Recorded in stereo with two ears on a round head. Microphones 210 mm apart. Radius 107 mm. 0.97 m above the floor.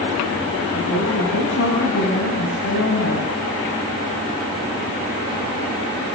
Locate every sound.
0.7 s a woman speaking: 60° left (ahead or behind), 6.5 m